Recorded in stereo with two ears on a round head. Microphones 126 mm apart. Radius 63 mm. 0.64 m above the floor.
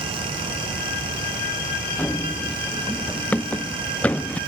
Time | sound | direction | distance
2.0 | running footsteps | 10° left (ahead or behind) | ?